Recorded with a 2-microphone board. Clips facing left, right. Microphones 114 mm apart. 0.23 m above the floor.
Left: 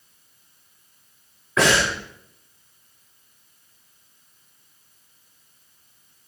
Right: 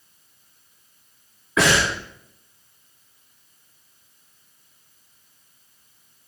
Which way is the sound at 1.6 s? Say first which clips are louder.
Even; 5° right (ahead or behind).